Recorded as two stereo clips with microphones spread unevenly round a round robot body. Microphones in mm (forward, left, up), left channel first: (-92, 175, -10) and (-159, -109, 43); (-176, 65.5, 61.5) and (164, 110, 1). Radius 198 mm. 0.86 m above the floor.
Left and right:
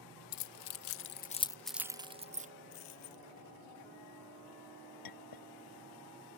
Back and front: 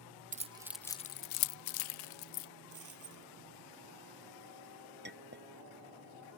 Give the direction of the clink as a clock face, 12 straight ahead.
10 o'clock.